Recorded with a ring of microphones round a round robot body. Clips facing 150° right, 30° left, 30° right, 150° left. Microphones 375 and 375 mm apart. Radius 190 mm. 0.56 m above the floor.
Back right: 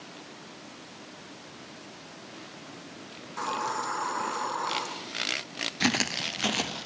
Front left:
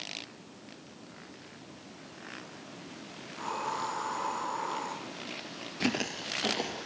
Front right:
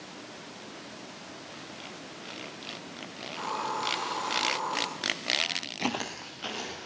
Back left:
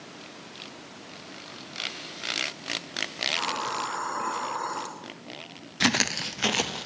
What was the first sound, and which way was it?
A hiss, 175° right.